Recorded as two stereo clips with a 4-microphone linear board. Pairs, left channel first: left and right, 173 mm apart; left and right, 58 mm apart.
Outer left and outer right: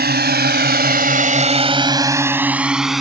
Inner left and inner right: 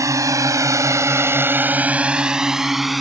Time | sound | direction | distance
0.0 | a drone | 65° right (ahead or behind) | ?